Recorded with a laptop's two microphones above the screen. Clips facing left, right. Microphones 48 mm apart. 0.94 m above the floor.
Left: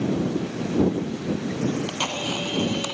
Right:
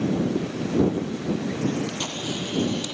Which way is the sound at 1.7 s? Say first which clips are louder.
Left 1 dB; 60° left (ahead or behind).